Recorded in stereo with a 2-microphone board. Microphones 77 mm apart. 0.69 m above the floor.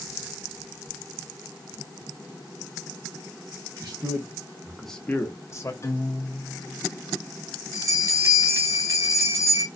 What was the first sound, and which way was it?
A man speaking, 60° right (ahead or behind).